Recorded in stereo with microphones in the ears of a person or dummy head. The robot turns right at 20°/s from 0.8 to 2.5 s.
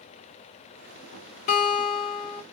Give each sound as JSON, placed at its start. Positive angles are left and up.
{"t": 1.5, "sound": "a guitar", "side_deg": 40, "distance_m": 0.9}